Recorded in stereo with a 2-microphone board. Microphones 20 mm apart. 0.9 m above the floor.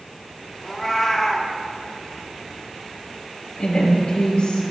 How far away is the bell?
I don't hear a bell.